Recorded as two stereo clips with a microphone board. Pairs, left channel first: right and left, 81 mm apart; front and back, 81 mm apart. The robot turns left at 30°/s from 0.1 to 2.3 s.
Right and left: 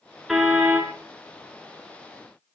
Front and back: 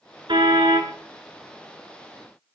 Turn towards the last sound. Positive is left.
turn(degrees=115)